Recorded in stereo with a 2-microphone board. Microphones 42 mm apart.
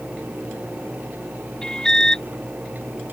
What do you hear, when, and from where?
1.6 s an alarm: 15° left (ahead or behind)